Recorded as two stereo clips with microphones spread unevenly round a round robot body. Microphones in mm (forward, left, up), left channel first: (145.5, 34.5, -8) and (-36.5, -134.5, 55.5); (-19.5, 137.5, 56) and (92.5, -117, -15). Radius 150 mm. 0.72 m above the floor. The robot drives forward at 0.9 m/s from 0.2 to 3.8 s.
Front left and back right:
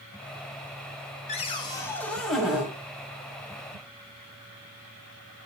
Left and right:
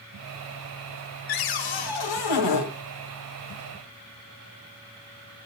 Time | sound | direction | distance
1.3 | a cupboard door | 110° left | 1.9 m